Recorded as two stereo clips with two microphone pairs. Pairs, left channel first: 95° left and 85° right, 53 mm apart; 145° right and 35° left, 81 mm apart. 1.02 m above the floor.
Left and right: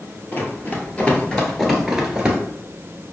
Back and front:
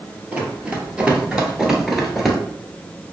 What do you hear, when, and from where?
0.3 s running footsteps: 95° left, 1.2 m; by 2.4 s 70° right, 1.0 m